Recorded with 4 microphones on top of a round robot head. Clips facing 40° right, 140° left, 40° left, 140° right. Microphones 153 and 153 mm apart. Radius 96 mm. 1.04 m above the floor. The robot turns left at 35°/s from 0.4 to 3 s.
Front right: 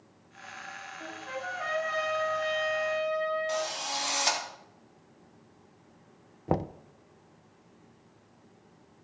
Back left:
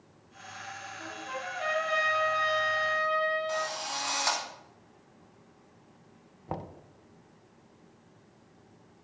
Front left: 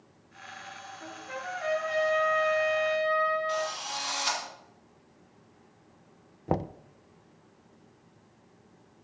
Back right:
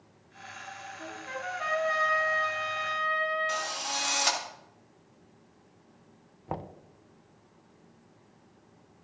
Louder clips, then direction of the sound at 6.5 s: Front right 9 dB, front left 8 dB; 5° right.